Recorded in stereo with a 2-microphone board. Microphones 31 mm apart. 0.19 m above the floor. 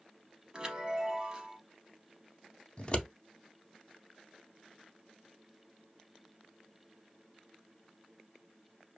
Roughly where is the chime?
Right.